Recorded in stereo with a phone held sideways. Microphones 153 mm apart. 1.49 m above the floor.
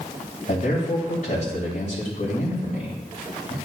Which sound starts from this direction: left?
A man speaking, at 0.5 s.